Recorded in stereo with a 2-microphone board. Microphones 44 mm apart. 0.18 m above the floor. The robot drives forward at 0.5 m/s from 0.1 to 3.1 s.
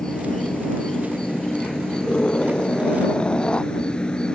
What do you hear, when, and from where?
0.0 s an insect: 15° left (ahead or behind); by 4.3 s 20° left (ahead or behind)
2.0 s a scream: 20° left (ahead or behind); by 3.7 s 25° left (ahead or behind)